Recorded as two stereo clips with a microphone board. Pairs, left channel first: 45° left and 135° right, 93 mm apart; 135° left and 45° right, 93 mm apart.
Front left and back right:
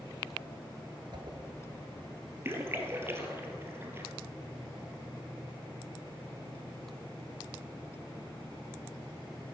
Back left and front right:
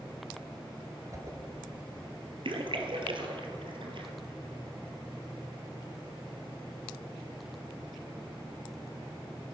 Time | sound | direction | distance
1.1 | a whoosh | 100° right | 1.1 m
2.5 | a splash | 70° right | 1.3 m